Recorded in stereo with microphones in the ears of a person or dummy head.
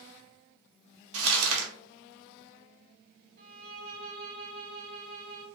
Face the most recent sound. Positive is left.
turn(degrees=-50)  # may be behind; listen again after turning